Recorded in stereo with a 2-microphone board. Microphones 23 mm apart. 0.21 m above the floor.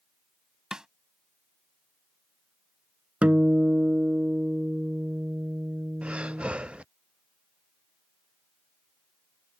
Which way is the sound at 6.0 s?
50° right (ahead or behind).